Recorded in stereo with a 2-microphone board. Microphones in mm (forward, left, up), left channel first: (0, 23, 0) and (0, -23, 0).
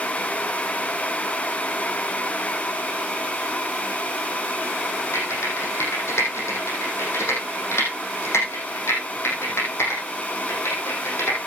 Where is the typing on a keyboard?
65° left (ahead or behind), 6 m.